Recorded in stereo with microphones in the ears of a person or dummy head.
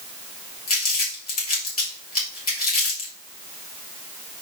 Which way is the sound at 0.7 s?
35° left (ahead or behind).